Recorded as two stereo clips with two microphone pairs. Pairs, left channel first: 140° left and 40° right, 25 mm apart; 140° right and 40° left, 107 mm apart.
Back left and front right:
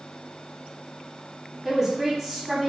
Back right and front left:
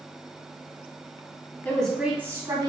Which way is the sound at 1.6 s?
95° right.